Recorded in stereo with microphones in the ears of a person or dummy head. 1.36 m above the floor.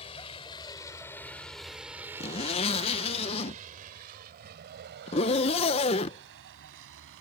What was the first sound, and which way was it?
A vehicle, 30° left (ahead or behind).